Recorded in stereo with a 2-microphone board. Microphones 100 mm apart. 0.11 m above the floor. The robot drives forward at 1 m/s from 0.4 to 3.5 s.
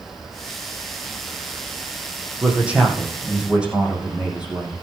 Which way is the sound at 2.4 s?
10° right (ahead or behind).